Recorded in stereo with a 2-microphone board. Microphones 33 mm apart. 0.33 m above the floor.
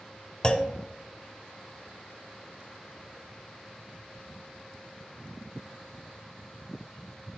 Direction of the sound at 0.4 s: 25° left (ahead or behind).